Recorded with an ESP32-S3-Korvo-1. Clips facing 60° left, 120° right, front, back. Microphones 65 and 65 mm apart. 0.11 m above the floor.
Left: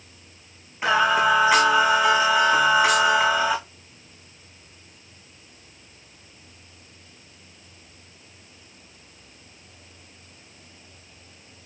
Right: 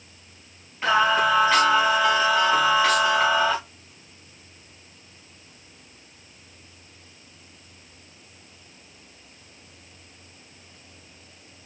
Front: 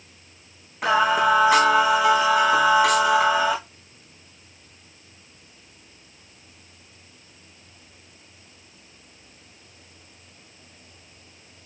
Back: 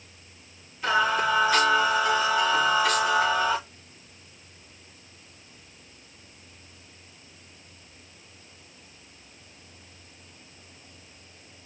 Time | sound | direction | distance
0.8 | singing | 15° right | 3.5 m